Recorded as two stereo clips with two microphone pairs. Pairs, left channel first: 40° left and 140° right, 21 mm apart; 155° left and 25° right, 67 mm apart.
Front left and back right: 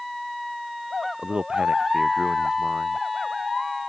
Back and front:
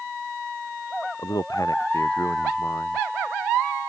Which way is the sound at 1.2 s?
175° left.